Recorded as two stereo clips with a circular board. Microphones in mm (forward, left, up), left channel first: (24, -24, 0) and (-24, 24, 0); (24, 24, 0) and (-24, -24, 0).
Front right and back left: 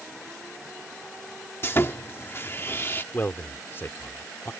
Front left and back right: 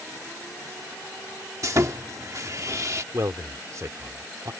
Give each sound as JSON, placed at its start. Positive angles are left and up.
{"t": 1.6, "sound": "sawing", "azimuth_deg": -100}
{"t": 3.1, "sound": "a man speaking", "azimuth_deg": -100}